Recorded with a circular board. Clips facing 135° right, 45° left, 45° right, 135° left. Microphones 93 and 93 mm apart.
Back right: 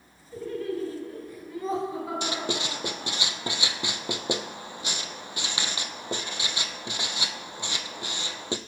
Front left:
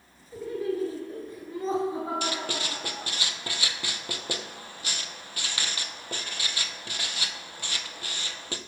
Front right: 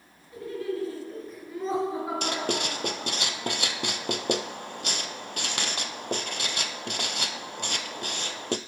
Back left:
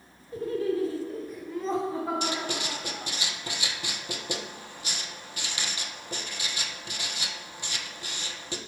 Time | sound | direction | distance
0.3 | laughter | 125° left | 1.2 m
2.2 | writing | 65° right | 0.5 m